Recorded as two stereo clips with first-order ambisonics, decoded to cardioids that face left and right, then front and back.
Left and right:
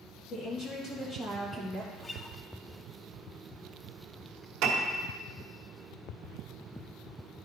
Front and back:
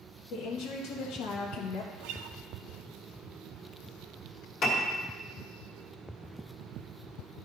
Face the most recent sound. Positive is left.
turn(degrees=-50)